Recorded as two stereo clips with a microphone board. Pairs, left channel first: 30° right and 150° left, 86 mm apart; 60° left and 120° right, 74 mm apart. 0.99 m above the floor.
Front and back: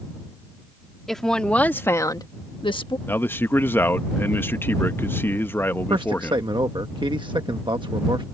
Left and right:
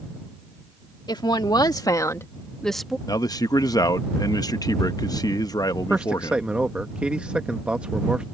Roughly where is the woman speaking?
Ahead left.